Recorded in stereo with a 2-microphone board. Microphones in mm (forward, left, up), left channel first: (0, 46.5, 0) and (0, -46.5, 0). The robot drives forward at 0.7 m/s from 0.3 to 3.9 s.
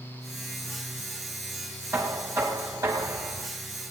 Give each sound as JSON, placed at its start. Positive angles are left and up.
{"t": 1.9, "sound": "knocking", "side_deg": -30, "distance_m": 3.5}